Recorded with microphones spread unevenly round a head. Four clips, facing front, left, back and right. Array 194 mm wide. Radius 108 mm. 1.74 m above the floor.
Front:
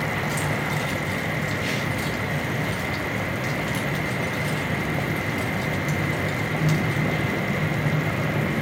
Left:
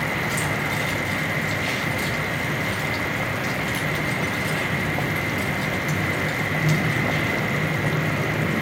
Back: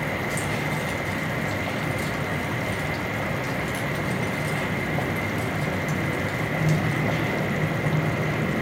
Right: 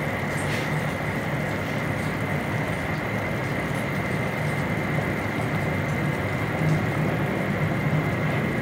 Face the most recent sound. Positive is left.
turn(degrees=55)